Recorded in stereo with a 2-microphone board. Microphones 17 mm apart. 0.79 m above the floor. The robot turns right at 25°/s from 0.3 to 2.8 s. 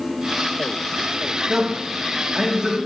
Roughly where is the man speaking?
Centre.